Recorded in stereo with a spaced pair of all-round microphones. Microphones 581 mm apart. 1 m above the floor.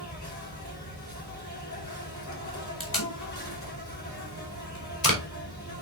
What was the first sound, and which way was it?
An insect, 30° left (ahead or behind).